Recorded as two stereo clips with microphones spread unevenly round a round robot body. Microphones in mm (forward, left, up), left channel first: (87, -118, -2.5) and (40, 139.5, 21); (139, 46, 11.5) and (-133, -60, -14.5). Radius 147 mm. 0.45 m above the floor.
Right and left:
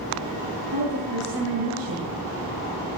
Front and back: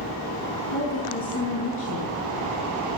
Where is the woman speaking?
70° left, 8.5 m.